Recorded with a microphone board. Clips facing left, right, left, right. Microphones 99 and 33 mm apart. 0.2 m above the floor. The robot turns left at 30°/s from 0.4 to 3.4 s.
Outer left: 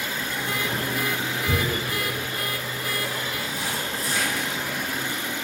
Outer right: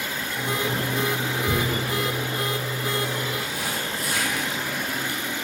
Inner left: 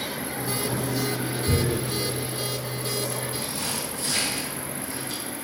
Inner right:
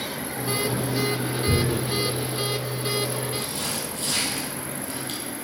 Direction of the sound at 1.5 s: 15° right (ahead or behind).